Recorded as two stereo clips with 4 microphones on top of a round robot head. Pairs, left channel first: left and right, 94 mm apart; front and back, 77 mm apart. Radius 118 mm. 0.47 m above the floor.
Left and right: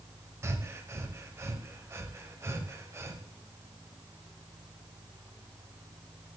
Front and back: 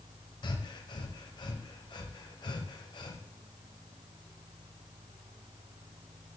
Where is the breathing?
25° right, 1.0 m.